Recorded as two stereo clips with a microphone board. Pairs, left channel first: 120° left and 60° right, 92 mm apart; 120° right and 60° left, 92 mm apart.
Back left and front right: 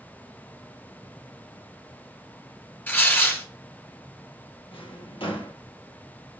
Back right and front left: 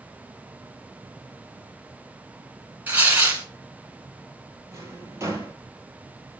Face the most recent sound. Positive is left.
turn(degrees=115)